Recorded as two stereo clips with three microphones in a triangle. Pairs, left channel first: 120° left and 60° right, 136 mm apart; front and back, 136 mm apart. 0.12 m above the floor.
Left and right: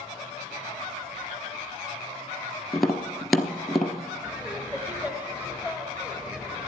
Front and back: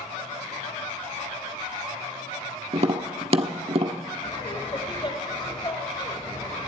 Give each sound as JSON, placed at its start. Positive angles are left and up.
{"t": 2.7, "sound": "tapping", "azimuth_deg": -150, "distance_m": 1.1}
{"t": 4.2, "sound": "laughter", "azimuth_deg": 10, "distance_m": 1.6}